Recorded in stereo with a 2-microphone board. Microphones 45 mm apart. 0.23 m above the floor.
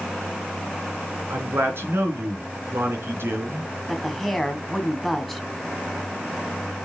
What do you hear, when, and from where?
1.3 s a man speaking: 65° right (ahead or behind), 3.5 m
3.9 s a woman speaking: 5° left (ahead or behind), 1.5 m